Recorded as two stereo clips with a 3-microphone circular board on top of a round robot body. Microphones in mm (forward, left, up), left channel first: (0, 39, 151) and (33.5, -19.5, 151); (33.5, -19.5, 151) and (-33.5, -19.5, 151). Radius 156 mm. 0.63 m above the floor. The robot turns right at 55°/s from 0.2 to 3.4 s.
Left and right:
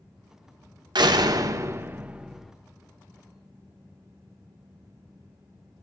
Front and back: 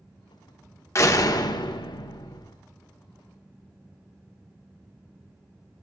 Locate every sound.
0.9 s a door slam: 50° right, 1.3 m; by 2.5 s 40° left, 1.3 m